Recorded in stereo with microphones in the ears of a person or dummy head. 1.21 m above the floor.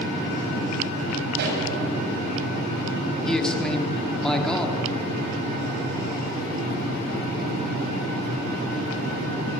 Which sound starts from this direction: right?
A pop, at 1.4 s.